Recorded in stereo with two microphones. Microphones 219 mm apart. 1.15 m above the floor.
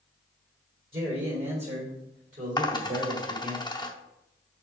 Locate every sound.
0.9 s a man speaking: 25° right (ahead or behind), 4 m; by 3.6 s 50° right (ahead or behind), 3.5 m
2.6 s a dropped coin: 20° left (ahead or behind), 0.8 m